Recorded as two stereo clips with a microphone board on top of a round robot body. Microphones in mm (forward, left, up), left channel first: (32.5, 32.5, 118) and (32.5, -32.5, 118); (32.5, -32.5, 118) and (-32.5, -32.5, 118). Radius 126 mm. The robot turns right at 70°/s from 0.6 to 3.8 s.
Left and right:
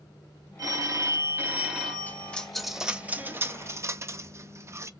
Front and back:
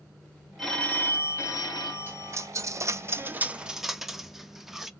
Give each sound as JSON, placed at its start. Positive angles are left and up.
{"t": 0.6, "sound": "a phone ringing", "azimuth_deg": -90, "distance_m": 1.2}
{"t": 2.1, "sound": "a dropped coin", "azimuth_deg": 140, "distance_m": 0.5}